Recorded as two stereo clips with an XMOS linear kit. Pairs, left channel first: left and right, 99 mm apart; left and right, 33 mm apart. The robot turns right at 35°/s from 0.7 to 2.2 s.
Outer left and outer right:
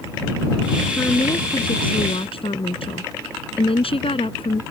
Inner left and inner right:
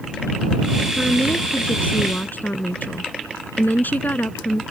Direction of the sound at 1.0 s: 25° left.